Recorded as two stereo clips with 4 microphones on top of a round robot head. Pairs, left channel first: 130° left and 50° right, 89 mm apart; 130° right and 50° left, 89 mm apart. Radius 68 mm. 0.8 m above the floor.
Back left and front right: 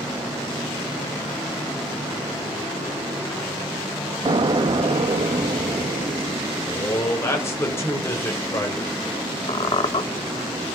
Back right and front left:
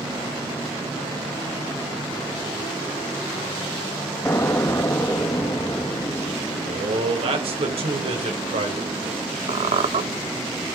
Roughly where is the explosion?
Right.